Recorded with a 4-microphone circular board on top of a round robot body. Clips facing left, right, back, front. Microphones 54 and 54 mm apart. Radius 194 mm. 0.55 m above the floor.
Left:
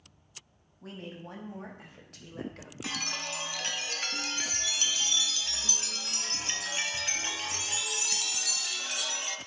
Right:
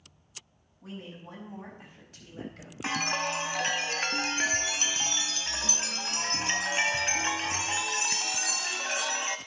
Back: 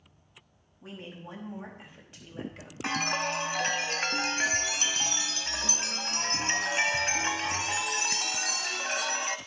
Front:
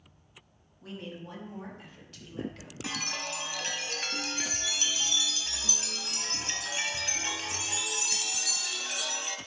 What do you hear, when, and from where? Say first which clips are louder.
0.8 s a woman speaking: even, front 2 dB; 105° left, 5.5 m; by 2.7 s 115° left, 3 m
2.8 s a chime: right 7 dB, back 7 dB; 145° right, 0.7 m